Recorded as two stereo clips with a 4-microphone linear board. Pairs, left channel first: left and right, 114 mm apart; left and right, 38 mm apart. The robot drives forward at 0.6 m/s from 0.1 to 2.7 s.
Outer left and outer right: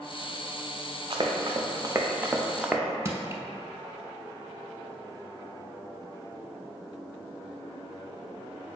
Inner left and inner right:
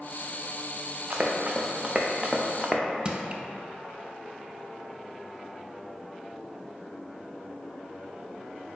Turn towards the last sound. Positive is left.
turn(degrees=-25)  # may be behind; listen again after turning